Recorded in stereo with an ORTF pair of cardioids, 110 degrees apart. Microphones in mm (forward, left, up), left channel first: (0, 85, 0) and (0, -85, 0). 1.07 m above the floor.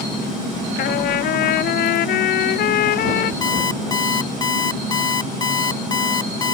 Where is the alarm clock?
25° left.